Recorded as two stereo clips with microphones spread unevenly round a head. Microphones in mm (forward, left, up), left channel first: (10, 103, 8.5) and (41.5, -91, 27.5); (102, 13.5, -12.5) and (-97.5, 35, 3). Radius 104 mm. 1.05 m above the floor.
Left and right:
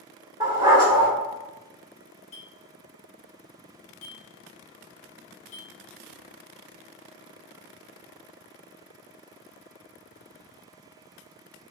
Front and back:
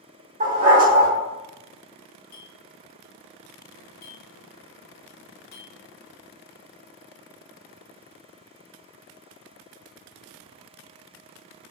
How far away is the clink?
About 0.6 m.